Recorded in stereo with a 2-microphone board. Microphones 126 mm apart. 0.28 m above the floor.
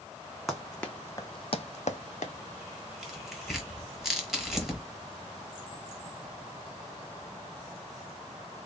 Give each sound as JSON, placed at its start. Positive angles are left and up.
{"t": 0.5, "sound": "running footsteps", "side_deg": 0, "distance_m": 1.0}
{"t": 3.0, "sound": "tearing paper", "side_deg": 0, "distance_m": 1.4}